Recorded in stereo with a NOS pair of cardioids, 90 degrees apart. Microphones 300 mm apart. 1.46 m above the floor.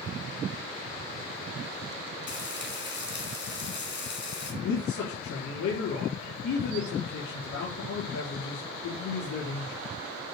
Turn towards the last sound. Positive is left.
turn(degrees=65)